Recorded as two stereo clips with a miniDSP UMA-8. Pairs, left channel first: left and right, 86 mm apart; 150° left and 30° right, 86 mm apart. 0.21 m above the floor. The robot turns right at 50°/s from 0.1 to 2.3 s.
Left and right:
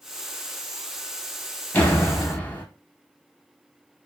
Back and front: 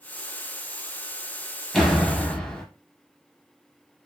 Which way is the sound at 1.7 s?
65° left.